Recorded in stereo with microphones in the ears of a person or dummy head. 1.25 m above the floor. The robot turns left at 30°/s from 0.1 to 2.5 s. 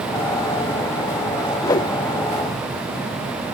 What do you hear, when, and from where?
1.6 s a whoosh: 15° left (ahead or behind); by 1.9 s 20° left (ahead or behind)